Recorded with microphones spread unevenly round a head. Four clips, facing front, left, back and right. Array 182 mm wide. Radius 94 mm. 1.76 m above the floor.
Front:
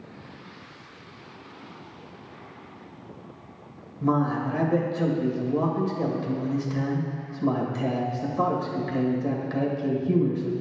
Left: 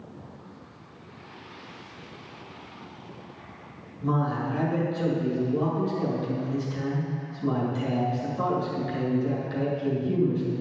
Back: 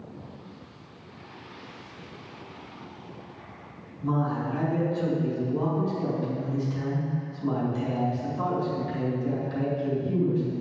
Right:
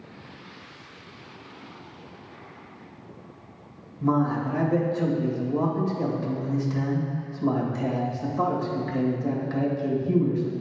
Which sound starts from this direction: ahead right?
A man speaking, at 4.0 s.